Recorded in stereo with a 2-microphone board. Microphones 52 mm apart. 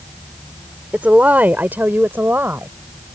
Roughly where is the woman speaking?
Right.